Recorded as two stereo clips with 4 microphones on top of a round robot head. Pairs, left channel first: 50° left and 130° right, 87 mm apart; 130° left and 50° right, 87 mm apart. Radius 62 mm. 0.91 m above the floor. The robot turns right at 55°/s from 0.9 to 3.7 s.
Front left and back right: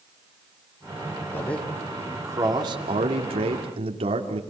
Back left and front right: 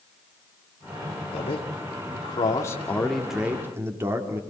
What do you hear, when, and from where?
1.3 s a man speaking: 115° left, 2 m; by 4.4 s 115° right, 2 m